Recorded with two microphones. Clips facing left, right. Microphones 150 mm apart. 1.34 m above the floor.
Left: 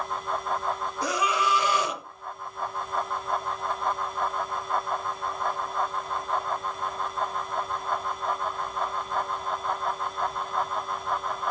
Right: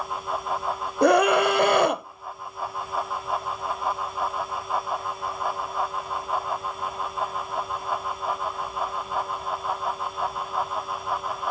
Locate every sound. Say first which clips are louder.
1.0 s a scream: right 10 dB; 60° right (ahead or behind), 0.6 m